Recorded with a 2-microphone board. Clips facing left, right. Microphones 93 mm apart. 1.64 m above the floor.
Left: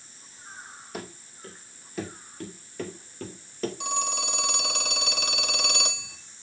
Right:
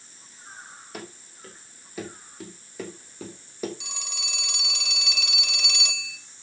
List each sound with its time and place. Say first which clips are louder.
0.9 s running footsteps: left 2 dB; centre (ahead or behind), 4 m; by 3.7 s 10° right (ahead or behind), 3 m
3.8 s a phone ringing: left 11 dB; 50° left (ahead or behind), 2.0 m